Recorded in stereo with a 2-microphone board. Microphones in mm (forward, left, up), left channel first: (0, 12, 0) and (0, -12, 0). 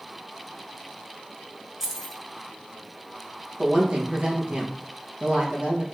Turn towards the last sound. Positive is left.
turn(degrees=-45)  # may be behind; listen again after turning